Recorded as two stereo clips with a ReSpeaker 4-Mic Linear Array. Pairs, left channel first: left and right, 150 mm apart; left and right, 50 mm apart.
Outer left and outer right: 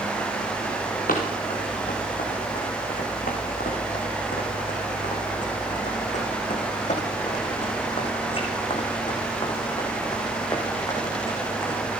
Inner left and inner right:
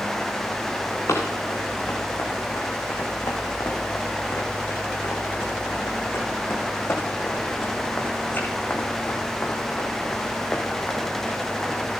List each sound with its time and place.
1.1 s running footsteps: 75° left (ahead or behind), 5 m; by 11.8 s 15° left (ahead or behind), 5 m